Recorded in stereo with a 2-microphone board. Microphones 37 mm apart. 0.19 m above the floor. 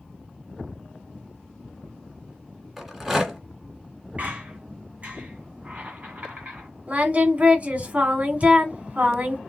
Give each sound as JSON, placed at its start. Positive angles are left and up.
{"t": 2.8, "sound": "a rattle", "side_deg": -5, "distance_m": 1.8}
{"t": 4.2, "sound": "a squeak", "side_deg": -40, "distance_m": 2.0}
{"t": 6.9, "sound": "singing", "side_deg": -40, "distance_m": 1.5}